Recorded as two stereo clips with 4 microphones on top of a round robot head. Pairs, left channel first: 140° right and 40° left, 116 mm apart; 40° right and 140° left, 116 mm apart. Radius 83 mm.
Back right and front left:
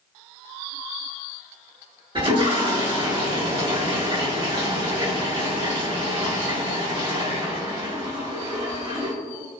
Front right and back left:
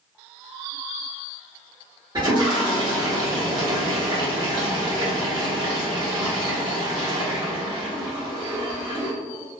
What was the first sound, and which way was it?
A toilet flushing, 90° left.